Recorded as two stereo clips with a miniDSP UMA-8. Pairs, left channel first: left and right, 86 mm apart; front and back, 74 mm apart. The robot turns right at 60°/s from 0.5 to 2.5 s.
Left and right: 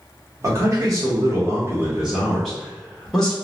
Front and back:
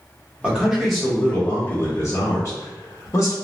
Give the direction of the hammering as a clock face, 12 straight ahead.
I don't hear hammering.